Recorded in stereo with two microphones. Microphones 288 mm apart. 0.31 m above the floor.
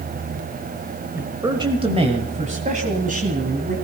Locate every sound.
1.1 s a man speaking: 10° right (ahead or behind), 1.3 m; by 3.8 s 30° right (ahead or behind), 2.5 m